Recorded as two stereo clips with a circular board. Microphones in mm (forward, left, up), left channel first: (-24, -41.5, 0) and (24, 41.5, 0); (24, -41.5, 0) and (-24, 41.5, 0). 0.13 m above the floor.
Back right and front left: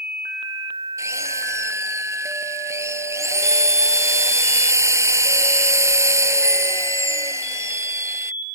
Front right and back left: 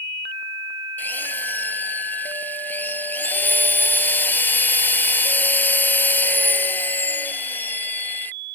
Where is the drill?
10° left.